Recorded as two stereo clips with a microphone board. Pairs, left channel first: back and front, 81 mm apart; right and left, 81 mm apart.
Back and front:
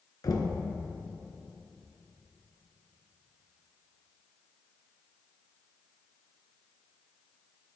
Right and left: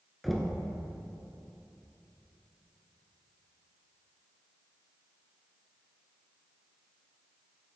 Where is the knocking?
Straight behind, 1.4 m.